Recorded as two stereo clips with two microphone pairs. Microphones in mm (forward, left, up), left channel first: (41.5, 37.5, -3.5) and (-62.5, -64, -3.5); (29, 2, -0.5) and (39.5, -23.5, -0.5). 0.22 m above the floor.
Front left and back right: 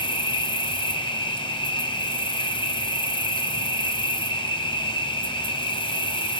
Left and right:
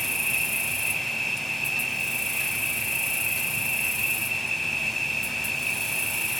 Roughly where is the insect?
Ahead left.